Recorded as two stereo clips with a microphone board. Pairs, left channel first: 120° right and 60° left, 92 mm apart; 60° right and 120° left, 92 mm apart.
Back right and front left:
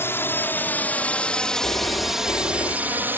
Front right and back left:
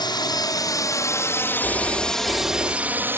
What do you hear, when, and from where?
0.0 s a drone: 65° right; by 3.2 s 95° left
1.6 s a phone ringing: 175° right